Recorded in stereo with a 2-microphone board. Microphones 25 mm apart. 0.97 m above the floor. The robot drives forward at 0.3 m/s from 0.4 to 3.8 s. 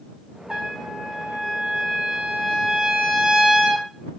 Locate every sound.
0.5 s a trumpet: 50° right (ahead or behind), 1.1 m; by 3.9 s 35° right (ahead or behind), 1.4 m